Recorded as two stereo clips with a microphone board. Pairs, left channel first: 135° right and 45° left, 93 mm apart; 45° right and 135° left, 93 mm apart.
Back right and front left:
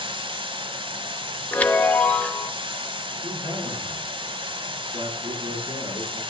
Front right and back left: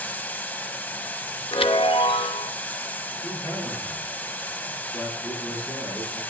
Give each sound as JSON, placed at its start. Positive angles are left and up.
{"t": 0.0, "sound": "running water", "azimuth_deg": 25, "distance_m": 0.8}
{"t": 1.5, "sound": "a chime", "azimuth_deg": -60, "distance_m": 0.7}
{"t": 3.2, "sound": "a man speaking", "azimuth_deg": 25, "distance_m": 6.5}